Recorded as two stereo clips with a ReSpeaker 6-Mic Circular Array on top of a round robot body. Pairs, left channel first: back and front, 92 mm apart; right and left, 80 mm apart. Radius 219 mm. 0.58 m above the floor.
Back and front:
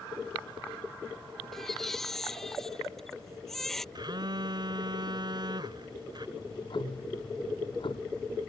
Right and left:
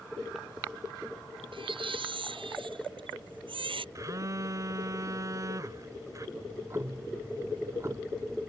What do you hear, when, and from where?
1.5 s a baby crying: 95° left
4.0 s a phone buzzing: 40° left
6.4 s ticking: 150° left